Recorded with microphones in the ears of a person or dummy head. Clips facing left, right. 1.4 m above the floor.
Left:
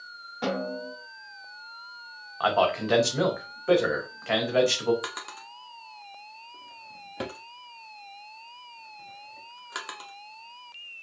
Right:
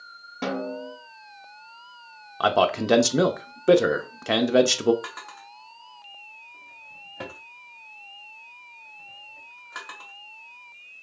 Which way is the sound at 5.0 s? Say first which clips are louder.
Left 2 dB; 40° left (ahead or behind).